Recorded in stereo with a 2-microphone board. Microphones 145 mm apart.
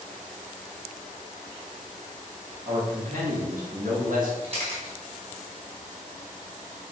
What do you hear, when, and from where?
2.6 s a man speaking: 70° right (ahead or behind), 3 m
4.4 s a camera shutter: 45° right (ahead or behind), 2.5 m